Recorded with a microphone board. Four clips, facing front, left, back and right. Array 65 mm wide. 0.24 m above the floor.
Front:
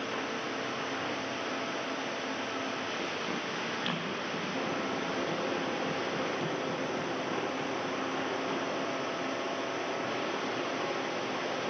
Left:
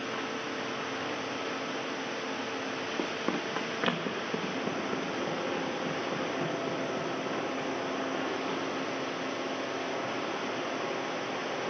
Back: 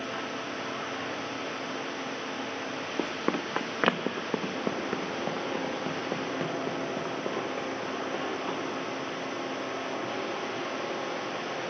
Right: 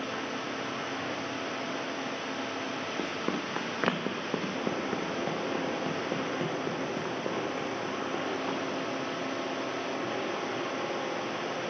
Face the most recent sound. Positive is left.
turn(degrees=-130)